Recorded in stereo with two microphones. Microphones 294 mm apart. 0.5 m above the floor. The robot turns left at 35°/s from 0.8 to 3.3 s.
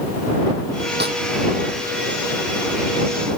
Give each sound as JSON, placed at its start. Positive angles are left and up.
{"t": 1.0, "sound": "a snare drum", "side_deg": -35}